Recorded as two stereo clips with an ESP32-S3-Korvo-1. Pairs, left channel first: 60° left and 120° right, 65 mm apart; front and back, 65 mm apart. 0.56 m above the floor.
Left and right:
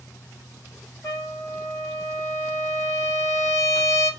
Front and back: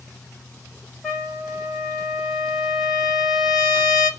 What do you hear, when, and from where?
1.0 s a trumpet: 85° left, 2 m